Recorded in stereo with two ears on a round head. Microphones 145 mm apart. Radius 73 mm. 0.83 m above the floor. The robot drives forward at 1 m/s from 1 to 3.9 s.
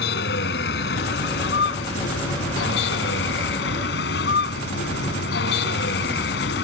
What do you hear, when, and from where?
0.0 s a vehicle: 70° left (ahead or behind); by 6.6 s 80° left